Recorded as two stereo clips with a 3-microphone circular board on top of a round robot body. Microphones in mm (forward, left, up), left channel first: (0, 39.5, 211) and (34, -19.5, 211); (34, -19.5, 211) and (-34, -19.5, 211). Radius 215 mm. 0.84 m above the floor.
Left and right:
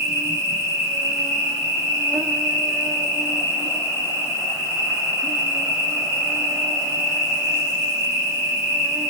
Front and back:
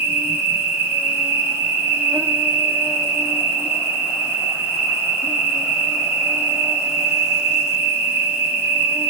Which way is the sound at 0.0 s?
115° right.